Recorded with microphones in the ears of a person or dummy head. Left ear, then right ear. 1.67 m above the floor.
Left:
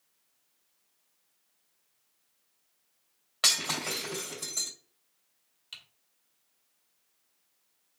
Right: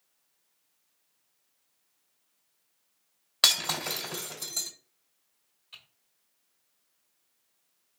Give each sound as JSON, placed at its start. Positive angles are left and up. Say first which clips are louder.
{"t": 3.4, "sound": "breaking glass", "louder": "right 3 dB", "side_deg": -45, "distance_m": 2.5}
{"t": 5.7, "sound": "typing on a keyboard", "louder": "left 4 dB", "side_deg": 25, "distance_m": 1.3}